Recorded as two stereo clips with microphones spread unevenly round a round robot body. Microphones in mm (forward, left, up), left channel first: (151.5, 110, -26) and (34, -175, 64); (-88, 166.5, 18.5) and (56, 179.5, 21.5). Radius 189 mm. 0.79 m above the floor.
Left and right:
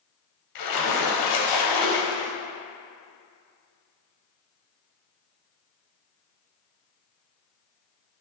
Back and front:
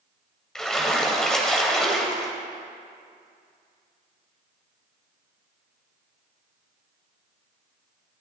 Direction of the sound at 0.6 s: 100° left.